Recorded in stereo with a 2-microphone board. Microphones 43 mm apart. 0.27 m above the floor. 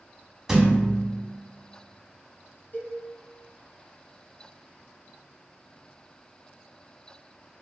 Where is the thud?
10° right (ahead or behind), 0.7 m.